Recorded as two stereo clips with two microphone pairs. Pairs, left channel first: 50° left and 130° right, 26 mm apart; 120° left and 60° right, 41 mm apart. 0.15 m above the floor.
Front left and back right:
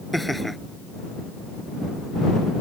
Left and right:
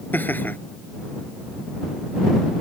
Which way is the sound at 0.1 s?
140° left.